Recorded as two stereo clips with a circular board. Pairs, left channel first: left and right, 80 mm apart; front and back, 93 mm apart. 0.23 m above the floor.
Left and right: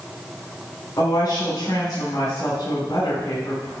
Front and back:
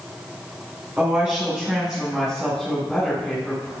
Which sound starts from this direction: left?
A woman speaking, at 1.0 s.